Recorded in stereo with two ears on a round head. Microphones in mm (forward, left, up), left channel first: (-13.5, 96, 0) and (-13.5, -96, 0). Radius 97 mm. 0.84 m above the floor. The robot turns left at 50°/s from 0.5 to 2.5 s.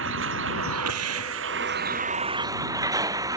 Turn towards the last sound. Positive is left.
turn(degrees=-160)